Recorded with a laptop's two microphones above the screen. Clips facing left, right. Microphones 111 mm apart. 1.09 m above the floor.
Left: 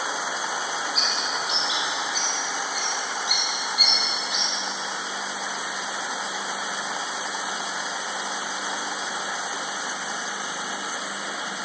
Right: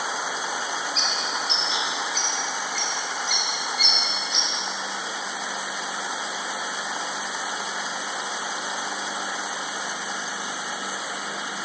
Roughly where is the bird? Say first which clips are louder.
Even; centre.